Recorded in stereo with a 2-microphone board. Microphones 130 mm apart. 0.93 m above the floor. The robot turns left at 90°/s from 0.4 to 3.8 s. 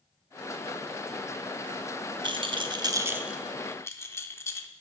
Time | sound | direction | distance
2.2 | a rattle | 40° right (ahead or behind) | 0.6 m